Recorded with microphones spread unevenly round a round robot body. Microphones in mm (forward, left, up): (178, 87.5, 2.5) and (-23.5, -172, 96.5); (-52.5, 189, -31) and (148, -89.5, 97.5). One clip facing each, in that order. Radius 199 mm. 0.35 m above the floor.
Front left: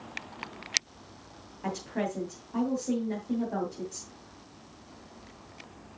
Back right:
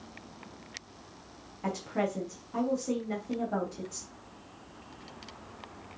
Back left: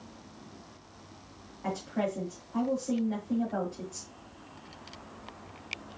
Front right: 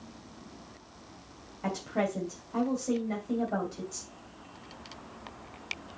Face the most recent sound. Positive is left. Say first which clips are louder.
# back right 1 dB, front right 1 dB
turn(degrees=-45)